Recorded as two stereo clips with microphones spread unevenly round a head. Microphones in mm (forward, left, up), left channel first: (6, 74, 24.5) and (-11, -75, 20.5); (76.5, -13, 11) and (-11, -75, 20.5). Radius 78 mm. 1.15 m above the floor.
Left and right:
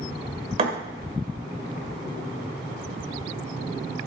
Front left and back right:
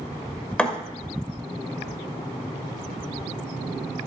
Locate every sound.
0.6 s a thud: 45° right, 1.4 m